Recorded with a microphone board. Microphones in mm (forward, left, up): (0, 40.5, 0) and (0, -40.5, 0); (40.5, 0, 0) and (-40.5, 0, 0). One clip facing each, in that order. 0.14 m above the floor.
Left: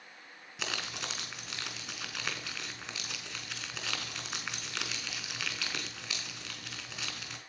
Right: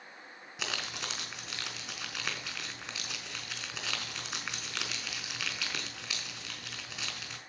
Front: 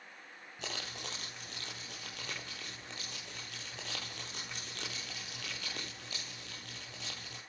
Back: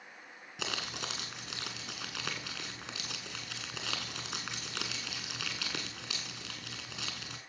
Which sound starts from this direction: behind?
Crumpling, at 0.6 s.